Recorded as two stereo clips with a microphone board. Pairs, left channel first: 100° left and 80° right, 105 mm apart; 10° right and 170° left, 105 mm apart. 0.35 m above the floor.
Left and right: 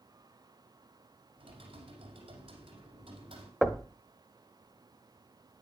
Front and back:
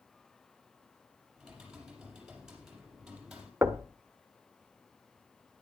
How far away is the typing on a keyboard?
About 5 m.